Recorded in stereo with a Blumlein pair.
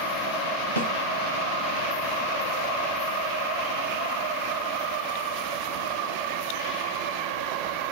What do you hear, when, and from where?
0.8 s a snare drum: 70° right, 0.5 m